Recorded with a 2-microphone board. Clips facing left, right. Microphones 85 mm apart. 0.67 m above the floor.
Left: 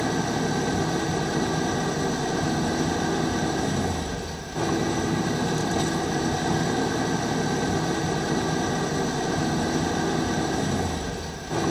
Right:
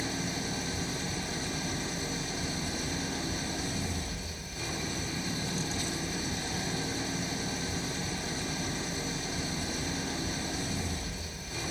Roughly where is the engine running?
Left.